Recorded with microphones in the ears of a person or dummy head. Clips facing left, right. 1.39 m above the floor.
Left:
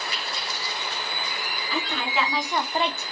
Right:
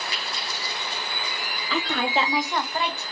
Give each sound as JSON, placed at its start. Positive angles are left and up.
{"t": 1.7, "sound": "a woman speaking", "side_deg": -60, "distance_m": 0.8}